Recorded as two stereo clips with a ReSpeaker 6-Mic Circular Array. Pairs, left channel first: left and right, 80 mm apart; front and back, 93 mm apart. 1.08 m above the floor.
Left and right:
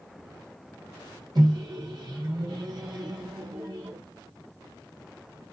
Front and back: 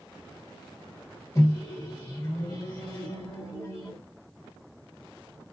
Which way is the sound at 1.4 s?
55° right.